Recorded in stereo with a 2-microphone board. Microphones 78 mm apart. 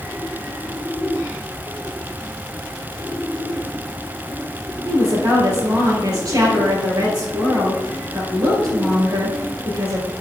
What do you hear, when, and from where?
4.8 s a woman speaking: 55° right (ahead or behind), 4 m